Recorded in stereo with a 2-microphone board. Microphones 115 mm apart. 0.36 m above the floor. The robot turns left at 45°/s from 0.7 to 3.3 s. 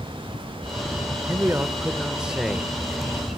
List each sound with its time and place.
1.3 s a man speaking: 20° right (ahead or behind), 0.8 m; by 2.7 s centre (ahead or behind), 0.8 m